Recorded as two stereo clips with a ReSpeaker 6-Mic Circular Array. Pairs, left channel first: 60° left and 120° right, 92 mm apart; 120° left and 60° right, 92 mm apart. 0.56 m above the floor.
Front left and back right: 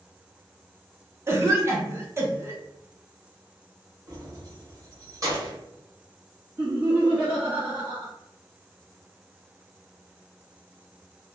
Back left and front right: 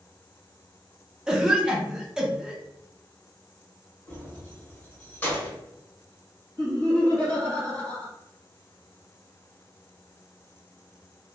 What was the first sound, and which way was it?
A cough, 130° right.